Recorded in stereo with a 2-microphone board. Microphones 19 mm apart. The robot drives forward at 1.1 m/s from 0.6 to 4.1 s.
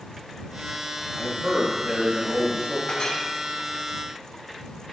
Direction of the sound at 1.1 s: 55° right (ahead or behind).